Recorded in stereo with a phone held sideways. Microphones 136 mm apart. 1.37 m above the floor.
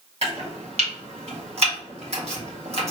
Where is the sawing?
No sawing in this recording.